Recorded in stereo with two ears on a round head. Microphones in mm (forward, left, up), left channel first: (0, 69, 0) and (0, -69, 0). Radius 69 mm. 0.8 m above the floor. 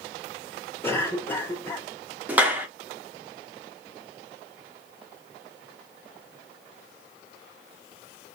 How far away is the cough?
About 2 m.